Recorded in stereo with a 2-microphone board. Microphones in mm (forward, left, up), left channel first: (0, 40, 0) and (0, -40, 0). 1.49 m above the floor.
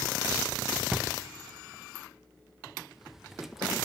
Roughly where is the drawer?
Centre.